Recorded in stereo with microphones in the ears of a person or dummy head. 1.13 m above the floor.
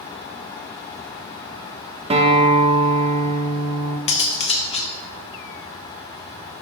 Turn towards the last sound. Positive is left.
turn(degrees=35)  # may be behind; listen again after turning